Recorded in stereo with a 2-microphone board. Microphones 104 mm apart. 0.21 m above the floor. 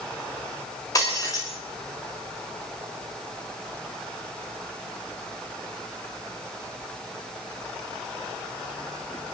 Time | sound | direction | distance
0.9 | breaking glass | 35° left (ahead or behind) | 8.5 m